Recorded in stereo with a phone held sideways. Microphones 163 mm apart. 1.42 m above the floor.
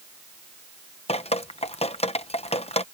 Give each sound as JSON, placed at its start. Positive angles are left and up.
{"t": 1.1, "sound": "dripping", "side_deg": 40}